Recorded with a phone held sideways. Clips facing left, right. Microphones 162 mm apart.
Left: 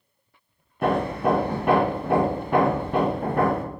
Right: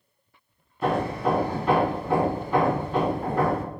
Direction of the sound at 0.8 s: 60° left (ahead or behind).